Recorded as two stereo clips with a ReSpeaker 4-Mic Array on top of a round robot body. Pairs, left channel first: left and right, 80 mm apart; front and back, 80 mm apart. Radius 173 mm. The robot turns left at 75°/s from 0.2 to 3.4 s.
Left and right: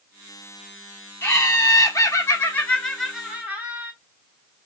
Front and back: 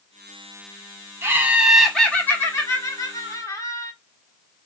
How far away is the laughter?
About 1.7 m.